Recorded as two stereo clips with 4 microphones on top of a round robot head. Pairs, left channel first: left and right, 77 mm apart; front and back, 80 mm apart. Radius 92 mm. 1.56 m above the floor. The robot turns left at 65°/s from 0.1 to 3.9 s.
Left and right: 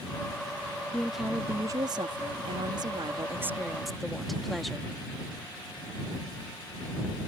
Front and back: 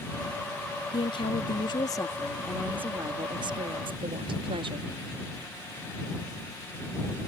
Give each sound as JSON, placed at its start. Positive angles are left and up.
{"t": 0.9, "sound": "a woman speaking", "azimuth_deg": 10}